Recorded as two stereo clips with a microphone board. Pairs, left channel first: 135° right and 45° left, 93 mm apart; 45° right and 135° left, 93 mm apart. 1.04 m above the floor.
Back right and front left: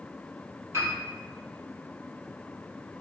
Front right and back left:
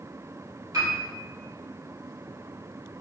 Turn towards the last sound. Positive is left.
turn(degrees=95)